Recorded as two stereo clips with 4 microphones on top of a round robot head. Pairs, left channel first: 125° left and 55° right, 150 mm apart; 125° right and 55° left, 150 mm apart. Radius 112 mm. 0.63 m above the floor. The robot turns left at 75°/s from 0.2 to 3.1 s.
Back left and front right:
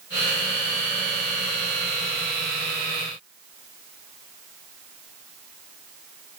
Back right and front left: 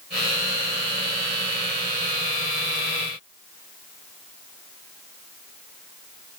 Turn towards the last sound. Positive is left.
No sound to turn to.